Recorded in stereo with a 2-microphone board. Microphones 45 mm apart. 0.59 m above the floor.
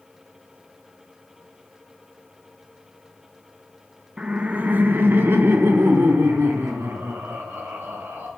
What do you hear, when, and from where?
4.2 s laughter: 20° right (ahead or behind), 0.6 m; by 8.3 s 70° right (ahead or behind), 3 m